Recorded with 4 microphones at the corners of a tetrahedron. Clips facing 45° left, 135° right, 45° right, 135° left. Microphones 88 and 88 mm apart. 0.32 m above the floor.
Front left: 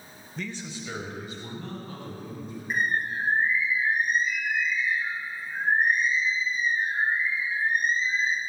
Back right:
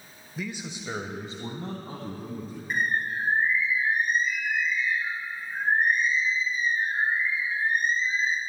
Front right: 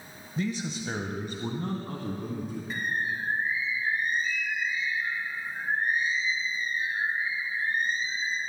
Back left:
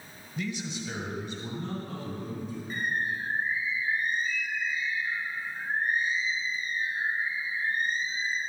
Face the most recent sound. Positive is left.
turn(degrees=-40)